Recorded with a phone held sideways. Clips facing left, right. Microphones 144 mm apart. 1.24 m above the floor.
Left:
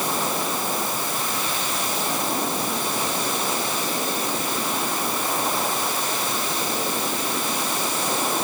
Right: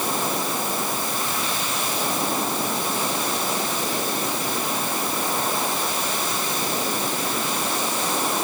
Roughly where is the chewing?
No chewing in this recording.